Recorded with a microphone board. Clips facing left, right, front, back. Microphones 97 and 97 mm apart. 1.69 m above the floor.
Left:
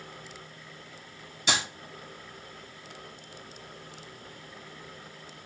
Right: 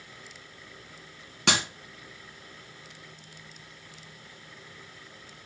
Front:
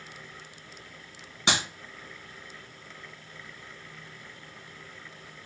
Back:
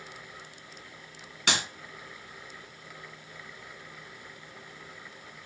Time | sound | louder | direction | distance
1.5 | a clap | right 2 dB, front 2 dB | 65° right | 2.5 m